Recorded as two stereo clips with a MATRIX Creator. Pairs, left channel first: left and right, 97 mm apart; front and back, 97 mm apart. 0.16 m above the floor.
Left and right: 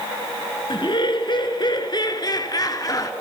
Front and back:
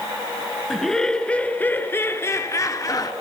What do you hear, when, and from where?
0.7 s laughter: 85° left, 2 m; by 3.1 s 45° left, 2.5 m